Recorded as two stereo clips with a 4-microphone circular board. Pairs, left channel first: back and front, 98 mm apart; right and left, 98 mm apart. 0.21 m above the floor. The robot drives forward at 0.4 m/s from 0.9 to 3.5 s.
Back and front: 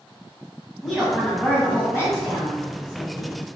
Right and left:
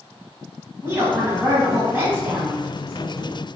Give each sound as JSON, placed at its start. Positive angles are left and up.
{"t": 0.8, "sound": "a woman speaking", "azimuth_deg": 95, "distance_m": 1.1}